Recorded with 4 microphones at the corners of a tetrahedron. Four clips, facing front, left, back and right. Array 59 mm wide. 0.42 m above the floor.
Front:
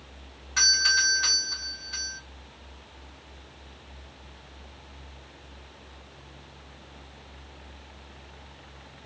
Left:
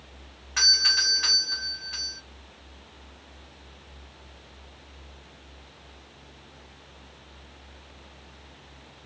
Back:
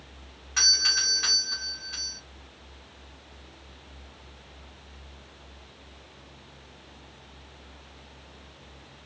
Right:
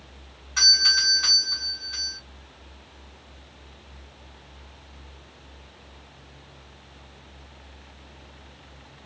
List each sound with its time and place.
0.6 s a doorbell: 115° left, 1.6 m